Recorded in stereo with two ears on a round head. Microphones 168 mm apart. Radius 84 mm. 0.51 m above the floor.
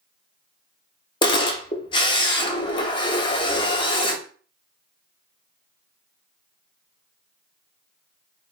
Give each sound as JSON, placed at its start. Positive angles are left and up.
{"t": 1.2, "sound": "a camera shutter", "side_deg": 25, "distance_m": 0.8}